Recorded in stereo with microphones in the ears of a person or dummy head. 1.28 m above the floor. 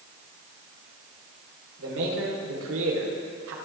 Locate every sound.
1.8 s a man speaking: 85° right, 4 m